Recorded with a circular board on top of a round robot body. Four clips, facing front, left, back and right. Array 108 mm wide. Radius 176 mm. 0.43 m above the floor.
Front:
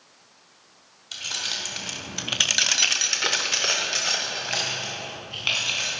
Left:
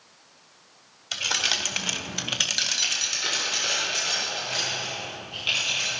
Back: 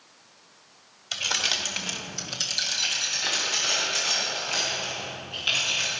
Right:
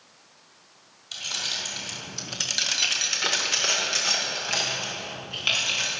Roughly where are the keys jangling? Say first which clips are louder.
Left 7 dB, back 5 dB; behind left.